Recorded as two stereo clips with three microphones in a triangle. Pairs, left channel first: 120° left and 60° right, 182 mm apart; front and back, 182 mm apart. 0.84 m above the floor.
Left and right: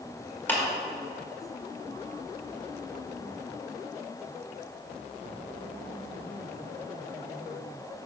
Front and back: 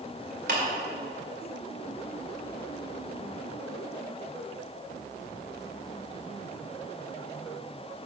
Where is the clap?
160° right, 2.0 m.